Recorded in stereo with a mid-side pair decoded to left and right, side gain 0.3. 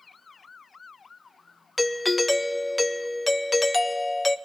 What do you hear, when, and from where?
1.8 s a doorbell: 25° left, 0.5 m